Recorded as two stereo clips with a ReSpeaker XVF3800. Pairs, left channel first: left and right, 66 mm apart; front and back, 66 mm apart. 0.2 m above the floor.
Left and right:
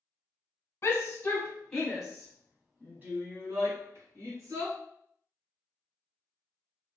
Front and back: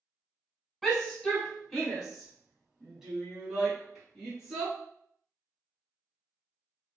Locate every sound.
0.8 s a shout: 85° left, 1.2 m; by 4.7 s 100° right, 2.0 m